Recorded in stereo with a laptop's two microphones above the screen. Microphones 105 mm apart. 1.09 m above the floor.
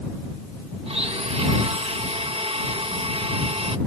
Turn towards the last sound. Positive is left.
turn(degrees=-70)  # may be behind; listen again after turning